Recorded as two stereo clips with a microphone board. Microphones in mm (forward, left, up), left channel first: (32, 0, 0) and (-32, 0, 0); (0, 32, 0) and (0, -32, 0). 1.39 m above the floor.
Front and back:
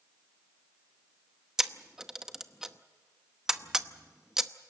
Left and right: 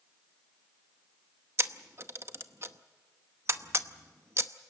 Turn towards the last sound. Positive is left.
turn(degrees=-100)